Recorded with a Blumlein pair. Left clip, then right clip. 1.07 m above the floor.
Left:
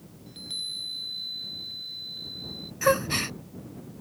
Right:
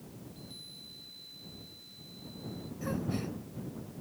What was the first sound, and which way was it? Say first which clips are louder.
A chime: left 17 dB; 55° left.